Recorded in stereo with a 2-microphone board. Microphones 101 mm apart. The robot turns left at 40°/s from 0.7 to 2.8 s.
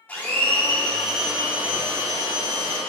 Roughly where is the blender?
Ahead.